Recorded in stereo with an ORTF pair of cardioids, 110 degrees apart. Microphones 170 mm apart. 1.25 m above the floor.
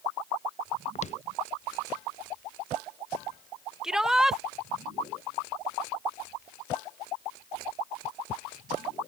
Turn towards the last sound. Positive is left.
turn(degrees=-5)